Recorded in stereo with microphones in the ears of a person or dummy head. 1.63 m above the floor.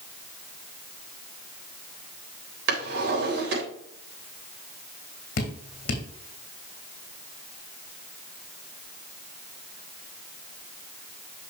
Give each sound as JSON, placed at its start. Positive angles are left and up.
{"t": 2.7, "sound": "a drawer", "side_deg": -70, "distance_m": 3.5}
{"t": 5.4, "sound": "dripping", "side_deg": 60, "distance_m": 2.0}